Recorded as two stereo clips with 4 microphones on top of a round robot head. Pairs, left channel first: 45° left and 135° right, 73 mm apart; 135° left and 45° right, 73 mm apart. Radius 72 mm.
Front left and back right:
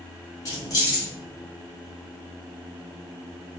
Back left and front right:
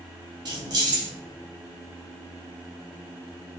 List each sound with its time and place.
0.5 s keys jangling: 5° right, 1.1 m